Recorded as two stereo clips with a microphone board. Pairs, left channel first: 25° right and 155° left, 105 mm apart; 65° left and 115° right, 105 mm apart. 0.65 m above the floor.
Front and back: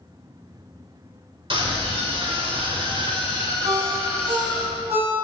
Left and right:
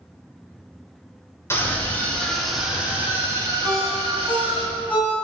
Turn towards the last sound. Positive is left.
turn(degrees=145)